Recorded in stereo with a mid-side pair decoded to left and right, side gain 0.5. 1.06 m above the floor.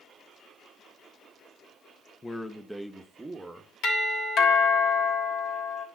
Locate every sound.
2.2 s a man speaking: 20° left, 0.8 m; by 3.7 s 20° right, 1.4 m
3.8 s a doorbell: 70° left, 3 m